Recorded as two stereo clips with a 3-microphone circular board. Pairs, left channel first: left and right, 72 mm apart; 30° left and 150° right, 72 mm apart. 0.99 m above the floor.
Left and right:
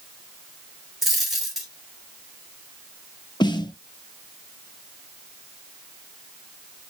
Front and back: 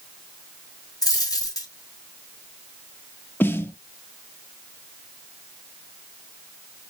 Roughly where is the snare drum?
Left.